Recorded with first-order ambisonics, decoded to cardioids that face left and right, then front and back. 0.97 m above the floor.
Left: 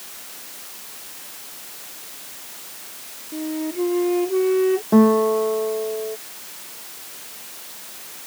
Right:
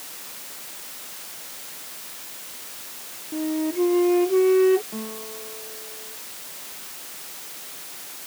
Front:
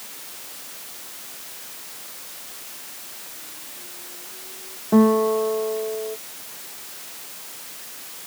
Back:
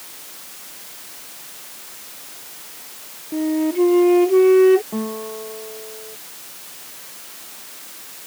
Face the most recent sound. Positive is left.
turn(degrees=55)